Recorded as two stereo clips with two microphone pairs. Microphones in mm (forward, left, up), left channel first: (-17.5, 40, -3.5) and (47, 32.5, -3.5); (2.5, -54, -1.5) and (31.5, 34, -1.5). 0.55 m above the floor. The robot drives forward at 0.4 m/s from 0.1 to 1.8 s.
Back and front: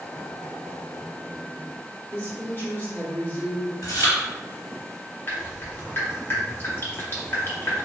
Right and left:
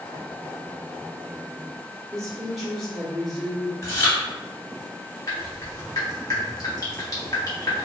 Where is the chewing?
160° right, 1.5 m.